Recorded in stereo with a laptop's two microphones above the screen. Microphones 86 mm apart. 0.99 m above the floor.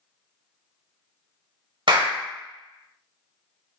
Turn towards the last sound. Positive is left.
turn(degrees=-65)  # may be behind; listen again after turning